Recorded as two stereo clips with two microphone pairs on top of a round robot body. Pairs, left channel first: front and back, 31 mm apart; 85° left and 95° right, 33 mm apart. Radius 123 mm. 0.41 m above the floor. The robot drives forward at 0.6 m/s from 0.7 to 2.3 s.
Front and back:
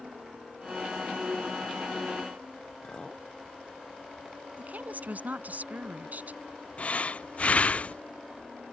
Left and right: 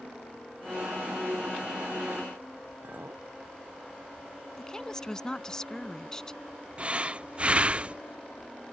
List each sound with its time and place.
2.8 s a clink: 65° right
4.6 s a woman speaking: 155° left
6.8 s breathing: 40° right